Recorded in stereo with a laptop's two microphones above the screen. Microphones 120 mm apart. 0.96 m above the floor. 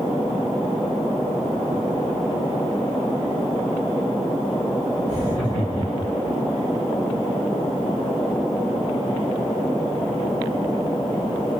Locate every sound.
5.1 s laughter: 35° right (ahead or behind), 2 m; by 6.3 s 30° right (ahead or behind), 2.5 m